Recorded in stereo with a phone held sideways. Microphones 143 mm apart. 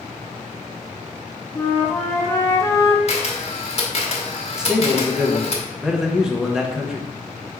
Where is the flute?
20° left (ahead or behind), 0.7 m.